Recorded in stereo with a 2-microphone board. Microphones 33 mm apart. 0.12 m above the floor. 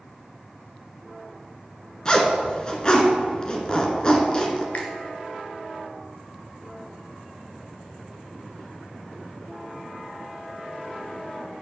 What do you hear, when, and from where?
2.0 s a zipper: 25° left (ahead or behind), 1.5 m
4.7 s a finger snap: 40° left (ahead or behind), 1.9 m